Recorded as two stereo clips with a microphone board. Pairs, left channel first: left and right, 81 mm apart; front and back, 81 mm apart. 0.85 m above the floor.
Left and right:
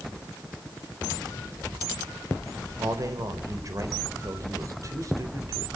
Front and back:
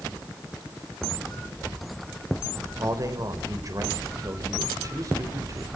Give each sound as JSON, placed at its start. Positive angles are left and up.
{"t": 2.8, "sound": "a man speaking", "azimuth_deg": -135, "distance_m": 4.0}